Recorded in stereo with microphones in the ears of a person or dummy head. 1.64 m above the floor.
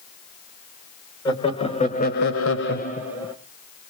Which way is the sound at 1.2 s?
25° left (ahead or behind).